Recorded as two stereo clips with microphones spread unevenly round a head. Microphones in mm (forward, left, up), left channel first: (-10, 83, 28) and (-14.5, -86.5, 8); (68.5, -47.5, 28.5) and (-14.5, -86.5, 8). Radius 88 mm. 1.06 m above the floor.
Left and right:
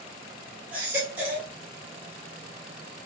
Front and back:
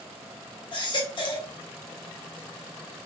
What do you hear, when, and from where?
0.7 s a baby crying: 10° right, 0.9 m